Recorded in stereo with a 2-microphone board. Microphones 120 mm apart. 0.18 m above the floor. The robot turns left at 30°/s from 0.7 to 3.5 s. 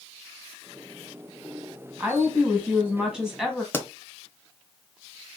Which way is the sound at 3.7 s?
20° left (ahead or behind).